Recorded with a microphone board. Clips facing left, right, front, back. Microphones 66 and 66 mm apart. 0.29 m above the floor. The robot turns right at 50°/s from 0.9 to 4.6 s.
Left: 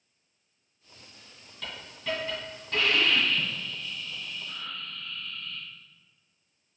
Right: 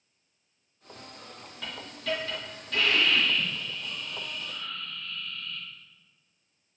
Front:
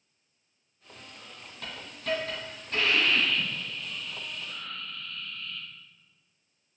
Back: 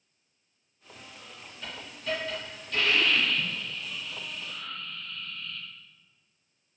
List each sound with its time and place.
1.6 s a hiss: 5° right, 2.0 m; by 5.7 s 145° left, 2.0 m